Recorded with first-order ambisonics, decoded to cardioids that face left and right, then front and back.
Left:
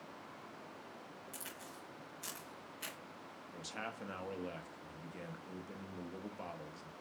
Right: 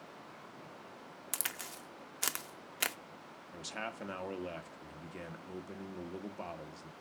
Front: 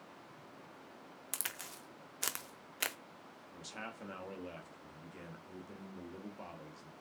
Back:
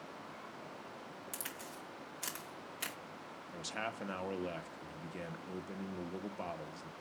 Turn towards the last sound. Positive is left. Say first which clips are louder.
# right 3 dB, back 6 dB
turn(degrees=-150)